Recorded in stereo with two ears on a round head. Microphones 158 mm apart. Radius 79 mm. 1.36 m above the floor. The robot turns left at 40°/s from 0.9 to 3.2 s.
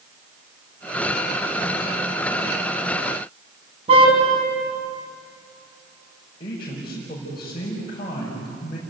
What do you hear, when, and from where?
3.9 s a car horn: 35° right (ahead or behind), 5 m
6.4 s a man speaking: 30° left (ahead or behind), 5.5 m